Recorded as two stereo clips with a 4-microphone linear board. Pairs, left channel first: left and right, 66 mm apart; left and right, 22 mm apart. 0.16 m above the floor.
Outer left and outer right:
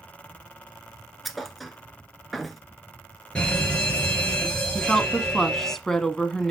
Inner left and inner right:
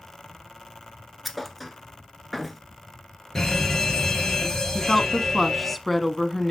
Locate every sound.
1.2 s a thud: centre (ahead or behind), 1.2 m
3.4 s a fire alarm: 15° left (ahead or behind), 5 m
4.8 s a woman speaking: 5° left (ahead or behind), 1.1 m